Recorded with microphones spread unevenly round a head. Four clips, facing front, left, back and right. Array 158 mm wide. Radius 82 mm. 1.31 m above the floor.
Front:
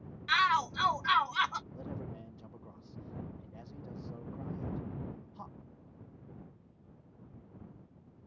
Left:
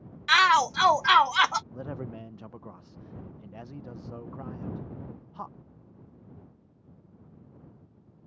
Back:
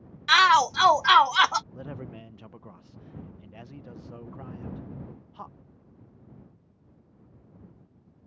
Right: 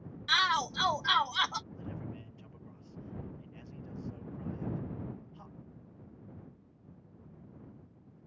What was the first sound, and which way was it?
A shout, 155° left.